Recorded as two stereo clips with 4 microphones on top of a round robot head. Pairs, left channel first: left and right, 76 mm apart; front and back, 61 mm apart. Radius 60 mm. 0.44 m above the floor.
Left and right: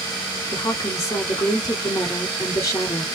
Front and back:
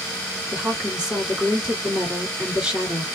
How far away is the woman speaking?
About 2.0 m.